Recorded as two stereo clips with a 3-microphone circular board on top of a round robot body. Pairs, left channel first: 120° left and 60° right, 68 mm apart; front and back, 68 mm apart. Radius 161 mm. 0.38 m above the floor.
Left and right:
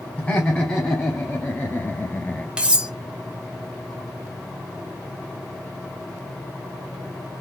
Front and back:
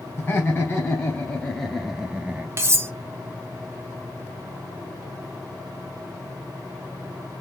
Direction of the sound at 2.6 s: 135° right.